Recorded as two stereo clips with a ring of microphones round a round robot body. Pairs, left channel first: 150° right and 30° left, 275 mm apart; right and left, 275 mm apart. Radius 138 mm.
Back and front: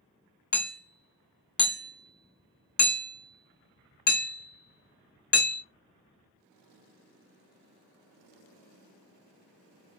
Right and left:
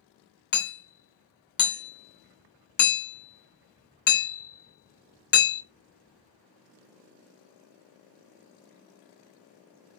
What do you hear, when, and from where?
0.5 s hammering: 120° right, 1.0 m